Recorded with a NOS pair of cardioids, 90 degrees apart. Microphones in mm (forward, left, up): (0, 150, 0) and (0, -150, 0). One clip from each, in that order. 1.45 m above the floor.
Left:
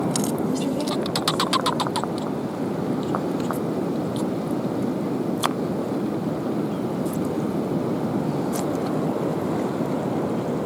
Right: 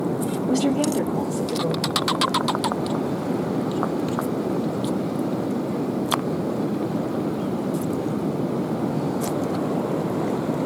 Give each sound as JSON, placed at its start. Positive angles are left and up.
{"t": 0.5, "sound": "a woman speaking", "azimuth_deg": -35, "distance_m": 3.5}